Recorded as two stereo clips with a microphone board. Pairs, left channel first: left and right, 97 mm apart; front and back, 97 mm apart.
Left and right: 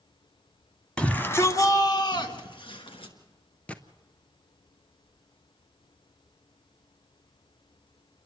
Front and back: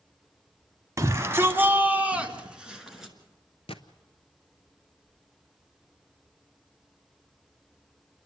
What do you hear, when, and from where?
1.0 s a shout: 160° left, 1.2 m; by 3.1 s 95° left, 2.5 m
3.7 s a gunshot: 15° left, 0.8 m